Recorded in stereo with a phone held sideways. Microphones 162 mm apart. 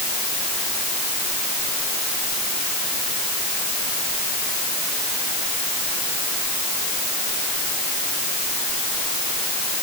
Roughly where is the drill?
No drill in this recording.